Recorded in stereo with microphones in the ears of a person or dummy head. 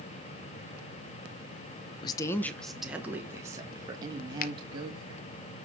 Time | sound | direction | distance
2.0 | a woman speaking | 25° left (ahead or behind) | 0.7 m
4.4 | a finger snap | 45° left (ahead or behind) | 1.0 m